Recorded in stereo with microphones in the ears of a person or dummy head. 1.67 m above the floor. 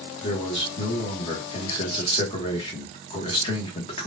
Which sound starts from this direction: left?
A man speaking, at 0.2 s.